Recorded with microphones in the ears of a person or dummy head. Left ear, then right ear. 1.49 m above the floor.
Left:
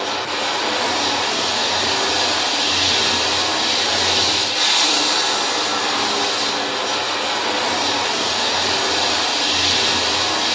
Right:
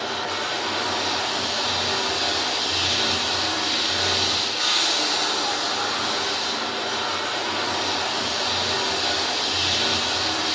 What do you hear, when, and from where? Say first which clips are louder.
0.0 s running water: left 5 dB; 60° left (ahead or behind), 1.0 m